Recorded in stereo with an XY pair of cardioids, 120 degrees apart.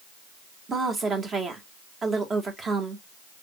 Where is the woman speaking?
35° right, 1.4 m.